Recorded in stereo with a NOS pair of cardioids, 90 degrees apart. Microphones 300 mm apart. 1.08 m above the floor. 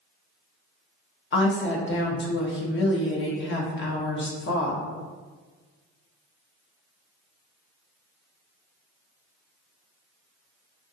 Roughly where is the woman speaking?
Ahead left.